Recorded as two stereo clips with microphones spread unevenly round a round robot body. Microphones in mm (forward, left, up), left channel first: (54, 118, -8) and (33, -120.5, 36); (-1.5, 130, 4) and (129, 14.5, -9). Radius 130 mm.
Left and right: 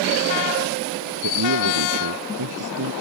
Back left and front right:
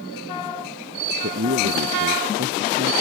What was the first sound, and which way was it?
A man speaking, 80° right.